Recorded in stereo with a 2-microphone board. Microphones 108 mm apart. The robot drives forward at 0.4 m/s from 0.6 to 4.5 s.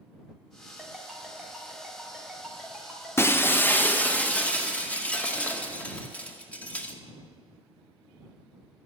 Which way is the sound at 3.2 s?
25° left (ahead or behind).